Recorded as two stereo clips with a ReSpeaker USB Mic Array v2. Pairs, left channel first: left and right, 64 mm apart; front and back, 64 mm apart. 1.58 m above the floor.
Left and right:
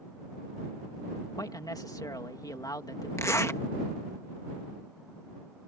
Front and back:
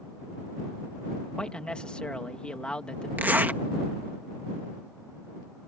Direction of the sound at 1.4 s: 75° left.